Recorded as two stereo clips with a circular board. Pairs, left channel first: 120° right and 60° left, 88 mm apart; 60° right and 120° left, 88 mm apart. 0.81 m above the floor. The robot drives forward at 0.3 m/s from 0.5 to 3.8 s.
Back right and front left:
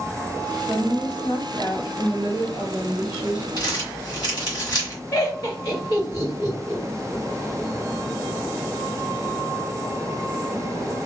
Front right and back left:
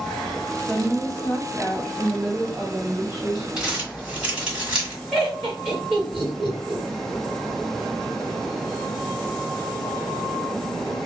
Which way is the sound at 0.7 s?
140° right.